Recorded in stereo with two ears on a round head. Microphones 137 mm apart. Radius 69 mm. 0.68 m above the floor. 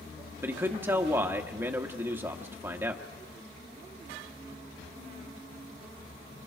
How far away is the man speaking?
About 1.1 m.